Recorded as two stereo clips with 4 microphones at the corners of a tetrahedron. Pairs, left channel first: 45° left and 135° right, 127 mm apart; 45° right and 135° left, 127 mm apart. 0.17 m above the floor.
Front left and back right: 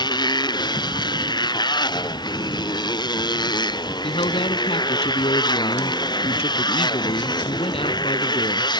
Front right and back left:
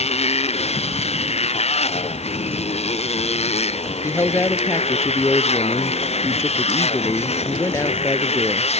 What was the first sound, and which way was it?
A motorcycle, 10° right.